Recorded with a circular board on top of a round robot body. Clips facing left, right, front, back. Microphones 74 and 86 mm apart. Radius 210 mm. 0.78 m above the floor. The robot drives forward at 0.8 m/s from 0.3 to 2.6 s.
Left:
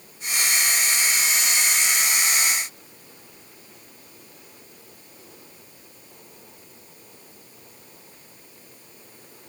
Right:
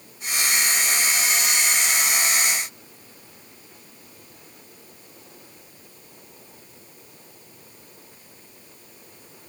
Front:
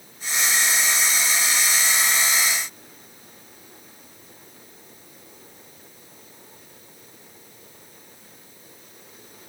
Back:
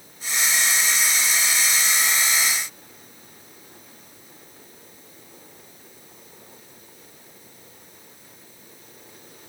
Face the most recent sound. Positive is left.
No sound to turn to.